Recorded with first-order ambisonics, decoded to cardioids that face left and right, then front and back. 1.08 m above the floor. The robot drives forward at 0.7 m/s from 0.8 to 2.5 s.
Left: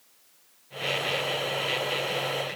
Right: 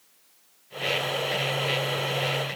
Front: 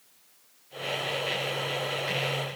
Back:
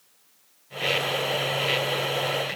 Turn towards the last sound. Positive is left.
No sound to turn to.